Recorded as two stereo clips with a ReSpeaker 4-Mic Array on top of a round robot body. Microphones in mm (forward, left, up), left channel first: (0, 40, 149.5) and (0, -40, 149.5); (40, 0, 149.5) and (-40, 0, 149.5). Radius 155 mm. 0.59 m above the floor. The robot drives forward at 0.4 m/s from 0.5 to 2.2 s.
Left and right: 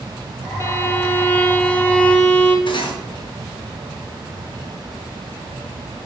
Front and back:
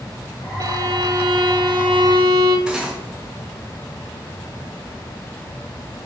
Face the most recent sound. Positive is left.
turn(degrees=100)